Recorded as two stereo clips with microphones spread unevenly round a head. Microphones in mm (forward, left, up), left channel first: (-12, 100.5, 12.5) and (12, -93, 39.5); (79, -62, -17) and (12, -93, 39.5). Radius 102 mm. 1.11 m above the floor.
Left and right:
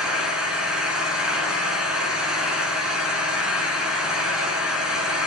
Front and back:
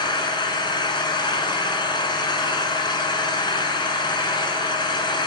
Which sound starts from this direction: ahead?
An engine running, at 0.0 s.